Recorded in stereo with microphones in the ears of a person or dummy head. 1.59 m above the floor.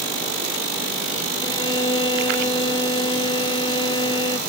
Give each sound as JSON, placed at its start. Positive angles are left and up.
{"t": 1.4, "sound": "a violin", "side_deg": 20}